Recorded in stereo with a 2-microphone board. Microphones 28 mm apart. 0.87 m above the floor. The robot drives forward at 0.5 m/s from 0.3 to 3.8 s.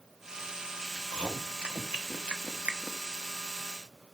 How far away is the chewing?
About 1.6 m.